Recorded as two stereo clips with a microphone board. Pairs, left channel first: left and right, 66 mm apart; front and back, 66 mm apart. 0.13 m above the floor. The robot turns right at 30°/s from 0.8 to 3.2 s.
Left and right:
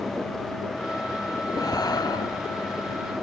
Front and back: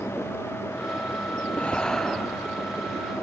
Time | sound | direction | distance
1.5 | breathing | 70° left | ?